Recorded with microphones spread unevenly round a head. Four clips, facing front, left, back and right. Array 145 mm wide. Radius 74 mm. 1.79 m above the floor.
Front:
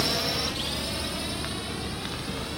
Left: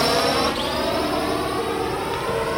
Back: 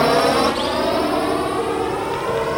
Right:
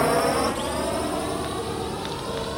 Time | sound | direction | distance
0.0 | a drone | 175° right | ?